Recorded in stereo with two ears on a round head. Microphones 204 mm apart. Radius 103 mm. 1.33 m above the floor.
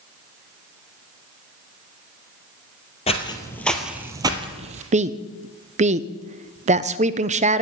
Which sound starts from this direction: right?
A woman speaking, at 4.9 s.